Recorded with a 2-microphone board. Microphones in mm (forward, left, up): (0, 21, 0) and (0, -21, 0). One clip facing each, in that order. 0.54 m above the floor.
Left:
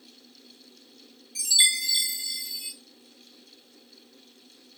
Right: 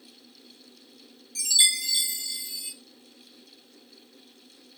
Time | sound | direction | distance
1.4 | a chime | 35° left (ahead or behind) | 3.5 m